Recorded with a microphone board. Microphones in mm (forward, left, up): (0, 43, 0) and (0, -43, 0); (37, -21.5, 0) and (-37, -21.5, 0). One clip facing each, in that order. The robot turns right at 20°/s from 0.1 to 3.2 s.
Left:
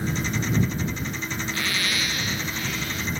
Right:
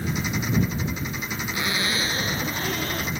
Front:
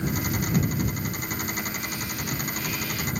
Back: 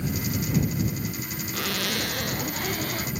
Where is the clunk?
I don't hear a clunk.